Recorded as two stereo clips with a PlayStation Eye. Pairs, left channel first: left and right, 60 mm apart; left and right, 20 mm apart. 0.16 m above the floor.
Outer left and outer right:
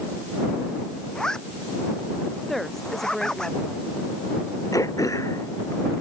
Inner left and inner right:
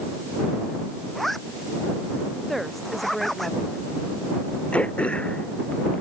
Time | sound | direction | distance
1.1 | a zipper | 10° left (ahead or behind) | ?
2.5 | a woman speaking | 5° left (ahead or behind) | ?
4.7 | throat clearing | 75° left (ahead or behind) | ?